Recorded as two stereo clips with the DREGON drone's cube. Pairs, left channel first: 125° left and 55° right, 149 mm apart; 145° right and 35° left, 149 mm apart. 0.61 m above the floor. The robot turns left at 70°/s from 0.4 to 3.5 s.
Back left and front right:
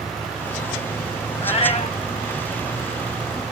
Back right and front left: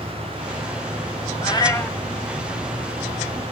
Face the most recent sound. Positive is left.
turn(degrees=25)